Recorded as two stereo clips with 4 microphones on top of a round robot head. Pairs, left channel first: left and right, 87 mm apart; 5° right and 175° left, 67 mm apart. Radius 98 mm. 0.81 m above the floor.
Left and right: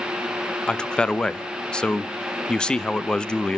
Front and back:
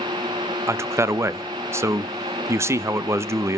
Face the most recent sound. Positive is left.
turn(degrees=165)